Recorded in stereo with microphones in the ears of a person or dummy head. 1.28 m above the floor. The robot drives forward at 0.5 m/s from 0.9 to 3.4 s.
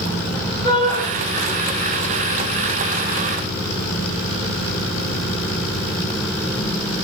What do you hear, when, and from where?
0.6 s a shout: 25° left (ahead or behind), 9.5 m